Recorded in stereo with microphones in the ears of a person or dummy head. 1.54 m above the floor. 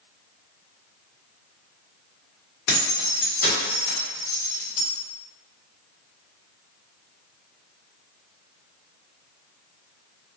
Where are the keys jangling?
60° left (ahead or behind), 1.1 m; by 4.8 s 30° left (ahead or behind), 1.2 m.